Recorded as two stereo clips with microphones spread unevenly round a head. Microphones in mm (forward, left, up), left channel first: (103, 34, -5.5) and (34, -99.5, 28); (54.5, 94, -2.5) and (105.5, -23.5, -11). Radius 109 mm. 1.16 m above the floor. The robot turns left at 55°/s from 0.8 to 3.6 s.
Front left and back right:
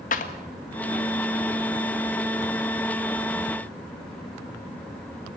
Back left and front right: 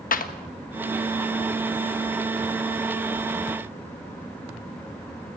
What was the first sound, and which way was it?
A clap, 110° left.